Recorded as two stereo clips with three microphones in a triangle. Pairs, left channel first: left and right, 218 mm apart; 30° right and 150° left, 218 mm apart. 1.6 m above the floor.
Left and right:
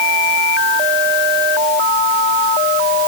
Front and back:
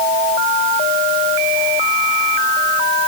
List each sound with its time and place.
Only background noise.